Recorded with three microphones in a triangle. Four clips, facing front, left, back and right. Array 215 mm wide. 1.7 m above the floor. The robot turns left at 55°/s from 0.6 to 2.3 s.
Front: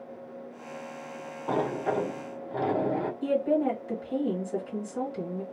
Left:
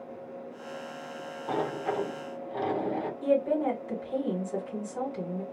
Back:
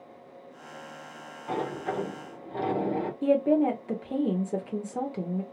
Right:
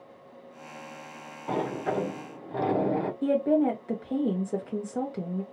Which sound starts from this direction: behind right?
A woman speaking, at 3.2 s.